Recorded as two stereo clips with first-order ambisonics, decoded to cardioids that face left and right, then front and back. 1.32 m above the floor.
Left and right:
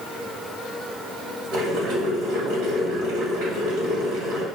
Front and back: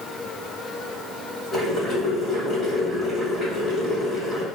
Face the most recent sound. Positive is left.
turn(degrees=-85)